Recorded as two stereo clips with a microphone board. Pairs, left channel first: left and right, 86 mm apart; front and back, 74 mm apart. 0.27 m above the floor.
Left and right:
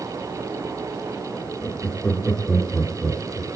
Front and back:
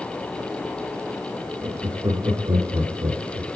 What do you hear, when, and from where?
1.6 s laughter: 160° left, 3.5 m; by 3.5 s 175° left, 4 m